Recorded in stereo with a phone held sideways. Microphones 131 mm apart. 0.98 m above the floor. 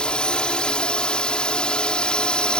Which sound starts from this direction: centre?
A drone, at 0.0 s.